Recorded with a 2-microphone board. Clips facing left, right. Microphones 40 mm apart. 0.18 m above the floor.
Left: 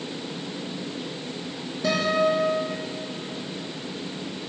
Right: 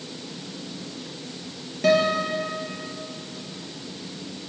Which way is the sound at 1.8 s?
75° right (ahead or behind).